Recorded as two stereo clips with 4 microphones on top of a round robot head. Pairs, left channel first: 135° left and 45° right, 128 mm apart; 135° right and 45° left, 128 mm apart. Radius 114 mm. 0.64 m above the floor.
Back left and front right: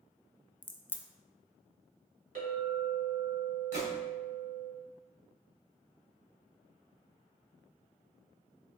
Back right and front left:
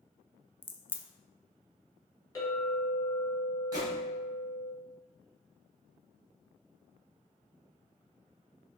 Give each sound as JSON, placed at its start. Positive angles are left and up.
{"t": 0.6, "sound": "a crack", "azimuth_deg": 180, "distance_m": 0.6}
{"t": 2.4, "sound": "a clink", "azimuth_deg": -70, "distance_m": 1.8}
{"t": 3.7, "sound": "a gunshot", "azimuth_deg": -15, "distance_m": 1.9}